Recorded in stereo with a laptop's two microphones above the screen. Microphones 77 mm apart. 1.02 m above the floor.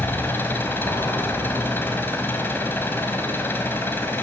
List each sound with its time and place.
0.0 s an engine running: 30° left (ahead or behind), 3.5 m